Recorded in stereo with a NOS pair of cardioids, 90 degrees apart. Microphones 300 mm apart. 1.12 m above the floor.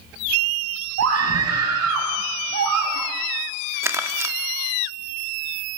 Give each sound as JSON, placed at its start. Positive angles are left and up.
{"t": 1.0, "sound": "a scream", "azimuth_deg": -55, "distance_m": 8.5}
{"t": 3.8, "sound": "crumpling", "azimuth_deg": -10, "distance_m": 1.8}